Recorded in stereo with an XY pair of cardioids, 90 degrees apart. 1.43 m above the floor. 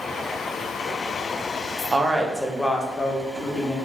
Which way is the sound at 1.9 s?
30° right.